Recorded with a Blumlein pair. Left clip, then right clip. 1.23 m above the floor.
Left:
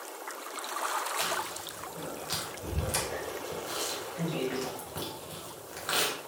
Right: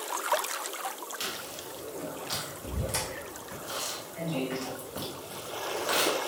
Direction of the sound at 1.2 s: Straight ahead.